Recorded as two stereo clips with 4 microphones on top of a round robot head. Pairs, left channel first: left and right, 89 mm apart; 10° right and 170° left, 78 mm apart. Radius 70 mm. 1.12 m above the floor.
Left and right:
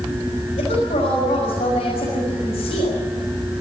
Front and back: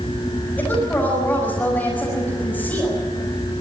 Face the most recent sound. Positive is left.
turn(degrees=60)